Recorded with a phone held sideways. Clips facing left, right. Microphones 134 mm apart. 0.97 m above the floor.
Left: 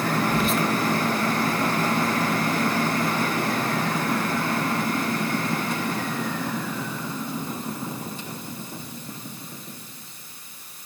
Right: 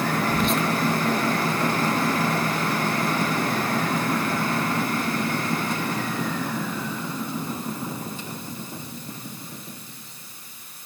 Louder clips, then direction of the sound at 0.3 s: Even; 5° left (ahead or behind).